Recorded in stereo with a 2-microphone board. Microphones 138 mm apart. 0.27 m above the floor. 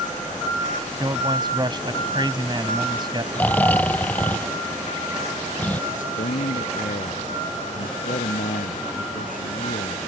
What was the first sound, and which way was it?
A man speaking, 35° right (ahead or behind).